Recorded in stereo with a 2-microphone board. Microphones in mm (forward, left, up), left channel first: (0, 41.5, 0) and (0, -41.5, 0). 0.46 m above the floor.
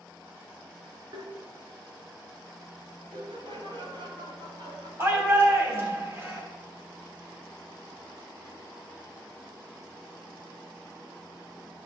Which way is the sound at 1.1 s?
50° right (ahead or behind).